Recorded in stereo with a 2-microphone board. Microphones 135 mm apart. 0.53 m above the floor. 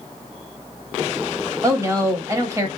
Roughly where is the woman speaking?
Right.